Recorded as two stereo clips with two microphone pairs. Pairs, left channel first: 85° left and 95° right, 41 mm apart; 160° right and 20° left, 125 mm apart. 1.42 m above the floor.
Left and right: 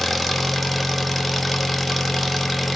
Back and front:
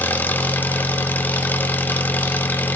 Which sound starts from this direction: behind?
An engine running, at 0.0 s.